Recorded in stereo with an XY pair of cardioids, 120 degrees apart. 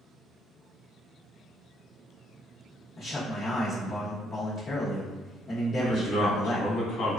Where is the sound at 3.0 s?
35° left, 0.8 m.